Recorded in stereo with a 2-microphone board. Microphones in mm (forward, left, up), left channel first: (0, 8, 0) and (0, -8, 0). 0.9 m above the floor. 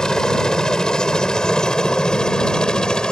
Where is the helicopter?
40° left (ahead or behind); by 3.1 s 50° left (ahead or behind).